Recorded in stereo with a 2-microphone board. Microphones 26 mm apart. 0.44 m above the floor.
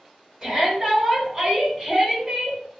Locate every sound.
0.4 s a shout: 30° right (ahead or behind), 1.6 m; by 2.6 s 25° right (ahead or behind), 1.3 m